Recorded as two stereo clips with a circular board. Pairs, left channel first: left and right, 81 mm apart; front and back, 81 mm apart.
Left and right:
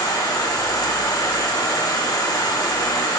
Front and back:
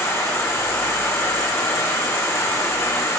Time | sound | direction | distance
0.0 | an insect | 55° left | 0.8 m